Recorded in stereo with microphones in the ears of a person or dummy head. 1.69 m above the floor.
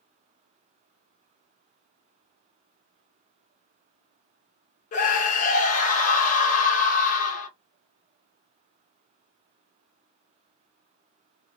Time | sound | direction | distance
4.9 | a scream | 50° left (ahead or behind) | 1.5 m